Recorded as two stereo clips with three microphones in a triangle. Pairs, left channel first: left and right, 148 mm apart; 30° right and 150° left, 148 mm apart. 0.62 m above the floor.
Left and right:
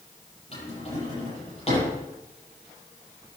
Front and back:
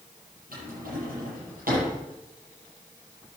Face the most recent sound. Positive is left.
turn(degrees=135)